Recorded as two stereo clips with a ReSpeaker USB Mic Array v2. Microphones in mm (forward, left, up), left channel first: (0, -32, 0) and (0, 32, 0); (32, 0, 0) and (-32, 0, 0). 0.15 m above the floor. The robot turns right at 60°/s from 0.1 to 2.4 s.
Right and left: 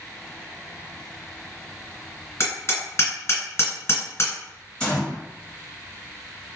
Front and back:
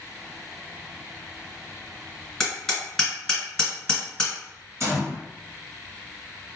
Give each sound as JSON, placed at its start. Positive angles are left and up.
{"t": 2.4, "sound": "hammering", "azimuth_deg": -80, "distance_m": 1.8}
{"t": 4.8, "sound": "a gunshot", "azimuth_deg": -160, "distance_m": 2.0}